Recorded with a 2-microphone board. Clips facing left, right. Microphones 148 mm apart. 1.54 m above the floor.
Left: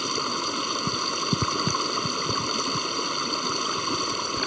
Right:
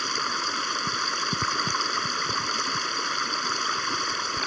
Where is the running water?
20° left (ahead or behind).